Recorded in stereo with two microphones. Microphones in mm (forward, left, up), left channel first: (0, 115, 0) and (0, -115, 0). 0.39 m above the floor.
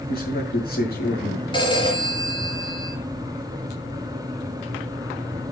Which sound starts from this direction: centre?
A phone ringing, at 1.5 s.